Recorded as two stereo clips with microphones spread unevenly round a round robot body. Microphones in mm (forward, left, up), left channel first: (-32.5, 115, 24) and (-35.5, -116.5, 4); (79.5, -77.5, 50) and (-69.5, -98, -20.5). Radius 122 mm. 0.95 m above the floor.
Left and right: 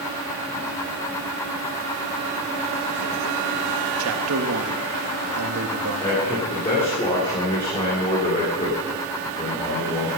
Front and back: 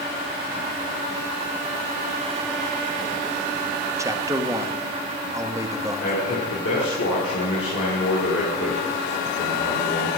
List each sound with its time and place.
4.0 s a man speaking: 110° right, 1.4 m
6.0 s a man speaking: 20° left, 3 m